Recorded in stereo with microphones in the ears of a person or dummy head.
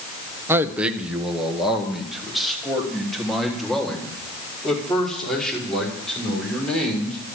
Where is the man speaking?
10° right (ahead or behind), 1.0 m; by 7.2 s 10° left (ahead or behind), 6 m.